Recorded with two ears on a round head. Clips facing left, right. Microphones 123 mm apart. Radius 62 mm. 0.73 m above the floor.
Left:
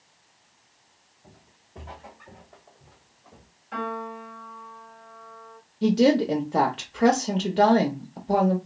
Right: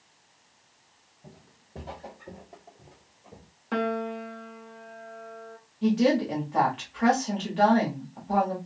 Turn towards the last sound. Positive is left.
turn(degrees=45)  # may be behind; listen again after turning